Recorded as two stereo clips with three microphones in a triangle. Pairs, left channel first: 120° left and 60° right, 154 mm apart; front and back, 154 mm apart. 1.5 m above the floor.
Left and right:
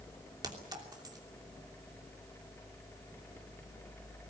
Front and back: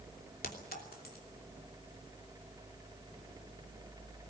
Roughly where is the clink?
Ahead.